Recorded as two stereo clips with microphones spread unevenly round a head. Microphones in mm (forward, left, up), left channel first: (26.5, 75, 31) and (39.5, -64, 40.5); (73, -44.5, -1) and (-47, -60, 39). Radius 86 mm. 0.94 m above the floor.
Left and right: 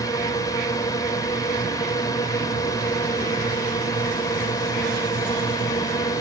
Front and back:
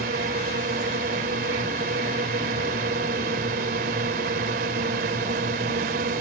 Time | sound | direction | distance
0.0 | a drone | 165° left | ?